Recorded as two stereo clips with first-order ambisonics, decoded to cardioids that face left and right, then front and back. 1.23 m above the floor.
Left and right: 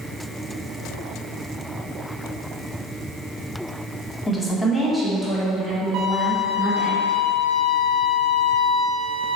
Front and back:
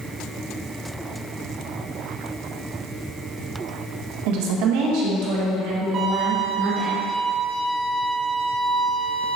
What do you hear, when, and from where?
4.3 s a woman speaking: 165° left, 1.2 m; by 6.9 s 175° right, 3.5 m
5.9 s a violin: 130° right, 2 m